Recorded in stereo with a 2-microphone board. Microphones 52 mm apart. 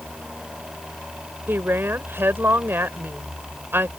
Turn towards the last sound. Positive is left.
turn(degrees=-45)  # may be behind; listen again after turning